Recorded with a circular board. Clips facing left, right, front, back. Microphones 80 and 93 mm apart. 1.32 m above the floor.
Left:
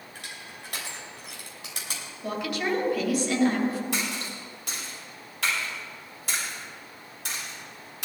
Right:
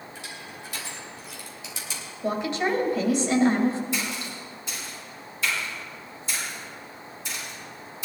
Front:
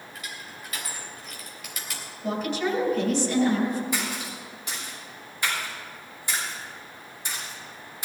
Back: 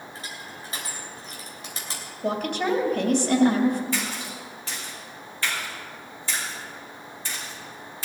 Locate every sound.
0.1 s crushing: 120° left, 3 m
2.2 s a woman speaking: 155° right, 2.5 m
3.9 s a splash: 75° left, 5.5 m